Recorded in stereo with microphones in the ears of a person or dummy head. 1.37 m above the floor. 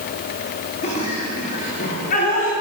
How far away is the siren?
I don't hear a siren.